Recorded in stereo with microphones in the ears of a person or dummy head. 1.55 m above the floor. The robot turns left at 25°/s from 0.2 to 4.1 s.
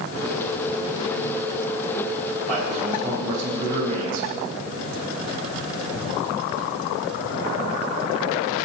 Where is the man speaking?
40° right, 4 m; by 4.3 s 80° right, 4 m.